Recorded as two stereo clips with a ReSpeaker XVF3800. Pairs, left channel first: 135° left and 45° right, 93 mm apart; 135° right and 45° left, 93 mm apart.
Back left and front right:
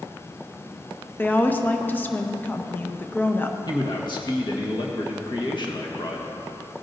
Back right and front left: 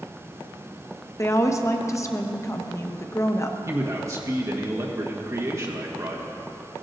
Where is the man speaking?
100° left, 1.4 m.